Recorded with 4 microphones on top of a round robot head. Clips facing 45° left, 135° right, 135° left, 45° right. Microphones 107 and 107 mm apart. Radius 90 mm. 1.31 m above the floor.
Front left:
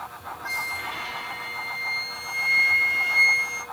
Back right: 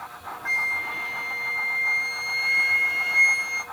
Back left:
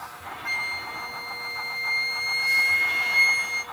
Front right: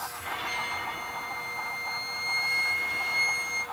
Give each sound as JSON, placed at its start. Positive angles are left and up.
{"t": 0.5, "sound": "a flute", "azimuth_deg": 110, "distance_m": 0.7}